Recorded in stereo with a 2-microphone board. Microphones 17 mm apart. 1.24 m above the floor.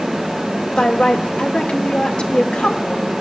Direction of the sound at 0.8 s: 85° left.